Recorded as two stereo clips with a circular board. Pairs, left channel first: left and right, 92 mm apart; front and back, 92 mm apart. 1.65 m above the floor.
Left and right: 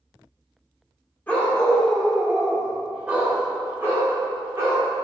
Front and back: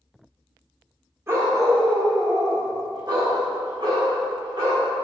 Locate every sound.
1.3 s a dog barking: 150° left, 1.4 m; by 4.9 s 150° right, 3 m